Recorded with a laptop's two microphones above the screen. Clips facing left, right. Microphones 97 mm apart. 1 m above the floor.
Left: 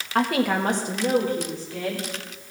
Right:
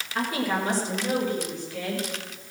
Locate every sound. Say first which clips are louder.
0.1 s a woman speaking: left 5 dB; 65° left (ahead or behind), 1.4 m; by 2.1 s 30° left (ahead or behind), 3 m